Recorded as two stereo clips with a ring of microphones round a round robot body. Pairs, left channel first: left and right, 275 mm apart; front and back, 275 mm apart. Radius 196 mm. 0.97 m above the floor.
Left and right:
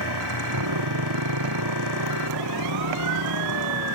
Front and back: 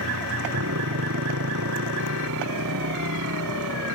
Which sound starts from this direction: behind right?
A motorcycle, at 0.0 s.